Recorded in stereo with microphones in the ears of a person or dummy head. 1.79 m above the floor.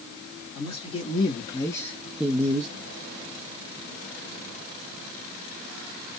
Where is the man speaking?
30° left (ahead or behind), 1.4 m; by 2.7 s 40° right (ahead or behind), 0.5 m.